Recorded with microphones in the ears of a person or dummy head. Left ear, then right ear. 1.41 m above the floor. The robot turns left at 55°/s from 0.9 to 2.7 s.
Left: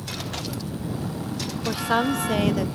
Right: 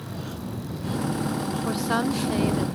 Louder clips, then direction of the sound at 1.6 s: Left 4 dB; 170° right.